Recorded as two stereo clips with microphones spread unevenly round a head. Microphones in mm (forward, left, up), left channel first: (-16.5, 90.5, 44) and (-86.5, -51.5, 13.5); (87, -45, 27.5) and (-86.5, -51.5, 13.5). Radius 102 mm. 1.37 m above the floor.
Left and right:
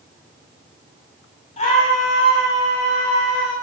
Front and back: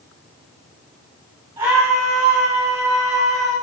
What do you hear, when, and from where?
1.6 s a scream: 100° left, 8 m; by 3.5 s 90° left, 9.5 m